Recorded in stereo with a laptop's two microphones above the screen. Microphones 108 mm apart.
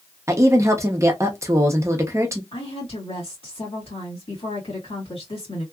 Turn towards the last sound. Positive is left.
turn(degrees=60)  # may be behind; listen again after turning